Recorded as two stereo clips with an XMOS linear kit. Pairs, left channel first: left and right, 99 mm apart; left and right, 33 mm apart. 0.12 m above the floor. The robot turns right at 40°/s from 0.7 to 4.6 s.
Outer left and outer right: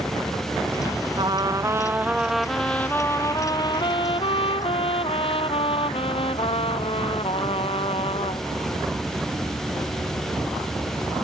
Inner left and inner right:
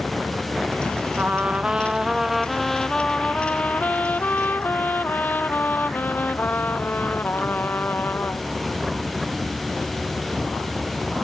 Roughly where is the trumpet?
Ahead right.